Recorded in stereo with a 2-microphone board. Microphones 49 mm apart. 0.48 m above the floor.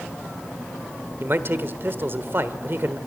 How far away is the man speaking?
About 1.3 m.